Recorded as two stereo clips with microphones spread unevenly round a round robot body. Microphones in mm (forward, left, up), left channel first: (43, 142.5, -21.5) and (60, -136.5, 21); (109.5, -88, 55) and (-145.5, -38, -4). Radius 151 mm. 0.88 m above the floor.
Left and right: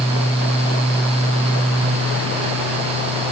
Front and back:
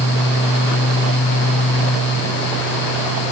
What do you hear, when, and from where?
Only background noise.